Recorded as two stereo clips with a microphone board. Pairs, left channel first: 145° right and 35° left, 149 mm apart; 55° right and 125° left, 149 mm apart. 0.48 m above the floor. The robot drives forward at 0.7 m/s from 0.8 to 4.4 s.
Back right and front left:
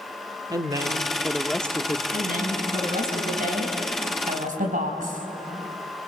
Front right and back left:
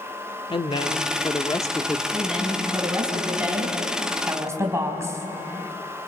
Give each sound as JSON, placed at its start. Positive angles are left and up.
{"t": 0.5, "sound": "a woman speaking", "azimuth_deg": -20, "distance_m": 1.0}
{"t": 2.1, "sound": "a woman speaking", "azimuth_deg": 40, "distance_m": 5.0}